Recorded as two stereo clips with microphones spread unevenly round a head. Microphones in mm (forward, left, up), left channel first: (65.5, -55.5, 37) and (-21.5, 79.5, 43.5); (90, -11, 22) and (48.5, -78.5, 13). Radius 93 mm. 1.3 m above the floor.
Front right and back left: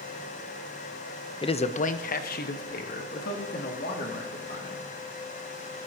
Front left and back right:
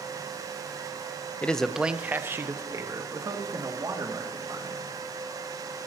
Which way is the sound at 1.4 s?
15° right.